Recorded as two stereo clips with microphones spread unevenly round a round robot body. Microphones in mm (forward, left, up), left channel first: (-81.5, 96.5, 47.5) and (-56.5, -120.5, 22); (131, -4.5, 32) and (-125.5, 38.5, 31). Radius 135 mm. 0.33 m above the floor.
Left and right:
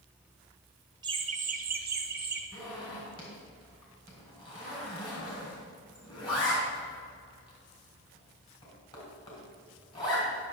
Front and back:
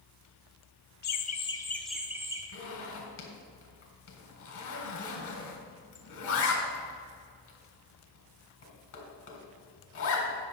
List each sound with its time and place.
1.0 s laughter: 30° right, 1.1 m; by 2.4 s 115° right, 1.7 m
2.5 s a zipper: 25° left, 3 m